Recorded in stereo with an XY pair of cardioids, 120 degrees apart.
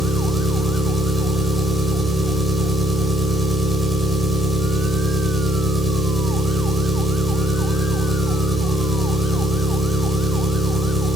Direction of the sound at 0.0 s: 5° right.